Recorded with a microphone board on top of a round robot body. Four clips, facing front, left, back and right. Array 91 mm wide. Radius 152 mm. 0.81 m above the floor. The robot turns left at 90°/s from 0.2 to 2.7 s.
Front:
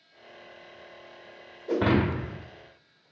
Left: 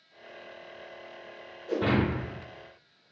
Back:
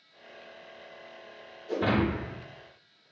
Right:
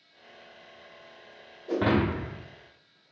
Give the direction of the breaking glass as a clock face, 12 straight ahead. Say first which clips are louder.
Right 2 dB, front 3 dB; 1 o'clock.